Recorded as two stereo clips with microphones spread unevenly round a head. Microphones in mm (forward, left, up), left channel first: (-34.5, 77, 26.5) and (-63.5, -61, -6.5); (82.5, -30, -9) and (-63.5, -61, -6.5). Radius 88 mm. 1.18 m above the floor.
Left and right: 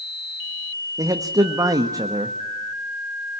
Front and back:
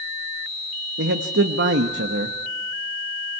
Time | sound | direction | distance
1.0 | a man speaking | 170° right | 1.2 m